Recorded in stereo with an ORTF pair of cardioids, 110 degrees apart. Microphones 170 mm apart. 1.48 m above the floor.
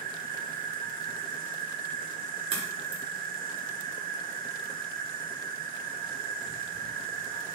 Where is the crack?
35° right, 3.5 m.